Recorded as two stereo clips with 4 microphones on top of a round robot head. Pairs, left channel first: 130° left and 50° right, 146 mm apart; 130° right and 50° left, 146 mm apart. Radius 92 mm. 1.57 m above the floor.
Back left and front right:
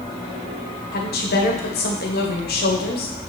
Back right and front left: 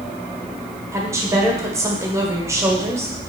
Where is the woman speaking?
120° left, 1.7 m.